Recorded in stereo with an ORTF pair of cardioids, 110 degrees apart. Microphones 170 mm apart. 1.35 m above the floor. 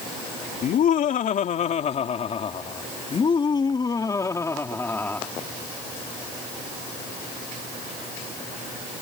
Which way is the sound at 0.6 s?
55° left.